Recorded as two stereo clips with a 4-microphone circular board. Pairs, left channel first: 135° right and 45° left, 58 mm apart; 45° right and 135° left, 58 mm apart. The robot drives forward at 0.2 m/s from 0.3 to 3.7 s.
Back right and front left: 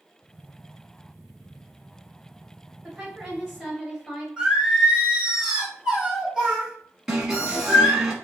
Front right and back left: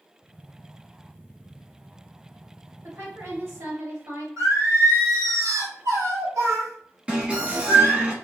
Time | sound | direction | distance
2.8 | a woman speaking | 130° left | 2.0 m
4.4 | singing | 130° left | 1.7 m
7.1 | an alarm | 115° left | 1.0 m